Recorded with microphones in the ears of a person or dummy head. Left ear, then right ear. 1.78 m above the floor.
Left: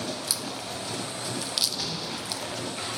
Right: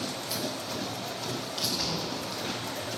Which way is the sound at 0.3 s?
50° left (ahead or behind).